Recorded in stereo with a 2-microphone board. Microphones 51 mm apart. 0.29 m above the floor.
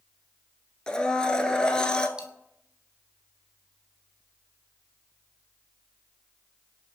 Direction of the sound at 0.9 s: 15° left (ahead or behind).